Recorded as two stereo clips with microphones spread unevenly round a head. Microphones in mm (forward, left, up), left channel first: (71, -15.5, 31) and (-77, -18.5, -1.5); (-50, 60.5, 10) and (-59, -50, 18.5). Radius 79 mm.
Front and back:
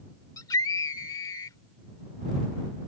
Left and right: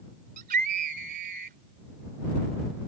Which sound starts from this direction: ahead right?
A scream, at 0.4 s.